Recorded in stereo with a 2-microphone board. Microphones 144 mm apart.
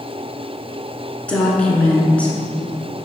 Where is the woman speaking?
10° left (ahead or behind), 1.5 m.